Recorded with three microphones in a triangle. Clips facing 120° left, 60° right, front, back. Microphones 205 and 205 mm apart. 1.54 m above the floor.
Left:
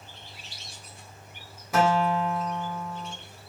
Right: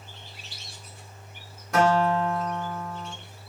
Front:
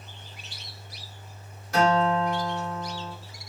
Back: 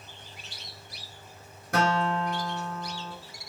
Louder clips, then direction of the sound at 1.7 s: Right 2 dB, front 4 dB; 155° right.